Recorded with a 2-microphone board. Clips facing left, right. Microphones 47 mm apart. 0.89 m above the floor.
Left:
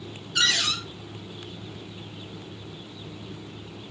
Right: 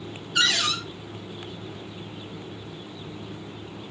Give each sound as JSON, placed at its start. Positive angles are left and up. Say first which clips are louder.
{"t": 0.3, "sound": "a cupboard door", "louder": "right 1 dB", "side_deg": -15, "distance_m": 3.0}